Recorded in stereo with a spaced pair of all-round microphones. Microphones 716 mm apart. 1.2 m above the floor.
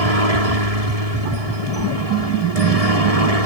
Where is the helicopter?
55° right (ahead or behind).